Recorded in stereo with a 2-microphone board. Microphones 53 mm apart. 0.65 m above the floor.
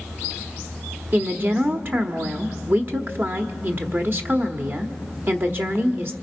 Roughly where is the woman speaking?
Right.